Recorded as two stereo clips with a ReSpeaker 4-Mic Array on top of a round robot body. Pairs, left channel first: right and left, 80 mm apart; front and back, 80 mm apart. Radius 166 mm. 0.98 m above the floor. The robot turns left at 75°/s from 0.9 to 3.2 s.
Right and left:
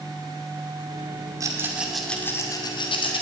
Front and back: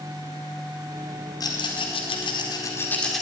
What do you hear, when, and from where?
1.4 s a rattle: 45° left, 2 m; by 3.2 s 90° right, 2 m